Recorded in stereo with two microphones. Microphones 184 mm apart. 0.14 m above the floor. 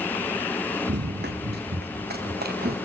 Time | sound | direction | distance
0.9 | running footsteps | 65° right (ahead or behind) | 0.9 m